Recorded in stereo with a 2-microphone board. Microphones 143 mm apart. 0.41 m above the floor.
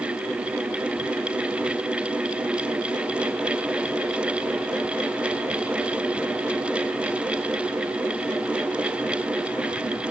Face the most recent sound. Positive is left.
No sound to turn to.